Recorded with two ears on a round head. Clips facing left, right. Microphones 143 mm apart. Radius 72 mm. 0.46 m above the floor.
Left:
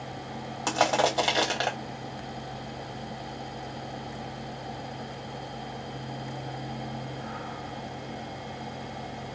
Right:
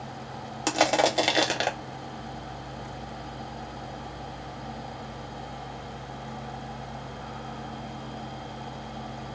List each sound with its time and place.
0.7 s crushing: 25° right (ahead or behind), 1.2 m